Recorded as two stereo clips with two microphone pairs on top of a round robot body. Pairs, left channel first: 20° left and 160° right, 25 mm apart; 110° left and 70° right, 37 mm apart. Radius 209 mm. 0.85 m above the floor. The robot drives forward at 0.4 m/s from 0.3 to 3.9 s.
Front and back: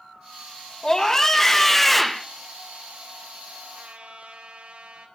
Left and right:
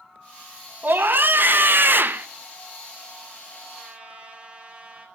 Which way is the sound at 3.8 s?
130° right.